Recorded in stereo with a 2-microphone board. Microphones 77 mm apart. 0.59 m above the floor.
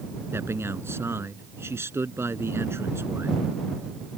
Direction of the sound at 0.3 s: 35° right (ahead or behind).